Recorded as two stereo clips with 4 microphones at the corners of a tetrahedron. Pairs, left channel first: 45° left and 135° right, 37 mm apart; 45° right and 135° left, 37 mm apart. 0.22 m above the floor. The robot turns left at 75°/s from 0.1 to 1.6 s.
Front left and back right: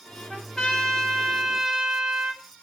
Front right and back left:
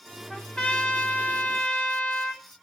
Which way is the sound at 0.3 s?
15° left.